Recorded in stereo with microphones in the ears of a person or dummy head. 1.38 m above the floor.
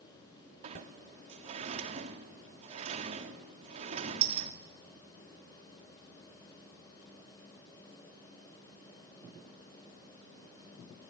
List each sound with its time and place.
0.6 s a sliding door: 35° right (ahead or behind), 1.6 m